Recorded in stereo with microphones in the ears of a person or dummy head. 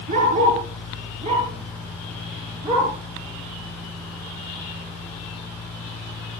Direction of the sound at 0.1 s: 35° right (ahead or behind).